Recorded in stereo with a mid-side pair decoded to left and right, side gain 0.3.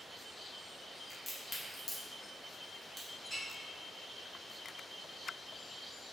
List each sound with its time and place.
1.1 s a crack: 50° left, 1.2 m
3.2 s a clink: 55° left, 1.8 m